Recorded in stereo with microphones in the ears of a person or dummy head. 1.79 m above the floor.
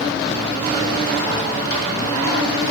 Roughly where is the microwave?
Left.